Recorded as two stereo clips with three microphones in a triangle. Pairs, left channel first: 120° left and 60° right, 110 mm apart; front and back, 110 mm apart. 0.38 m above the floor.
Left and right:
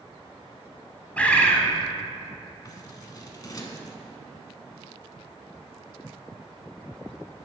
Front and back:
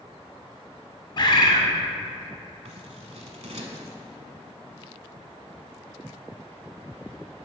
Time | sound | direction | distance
1.2 | a bird | 40° left | 0.9 m
2.6 | scissors | 170° left | 0.9 m